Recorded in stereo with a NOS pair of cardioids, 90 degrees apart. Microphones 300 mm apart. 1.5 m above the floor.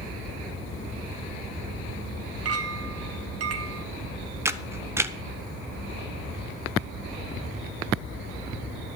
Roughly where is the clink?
Ahead right.